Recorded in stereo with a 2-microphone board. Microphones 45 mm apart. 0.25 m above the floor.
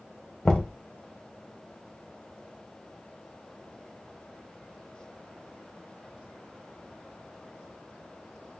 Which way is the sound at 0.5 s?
20° left (ahead or behind).